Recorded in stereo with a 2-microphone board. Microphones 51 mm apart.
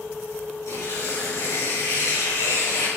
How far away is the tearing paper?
About 7 m.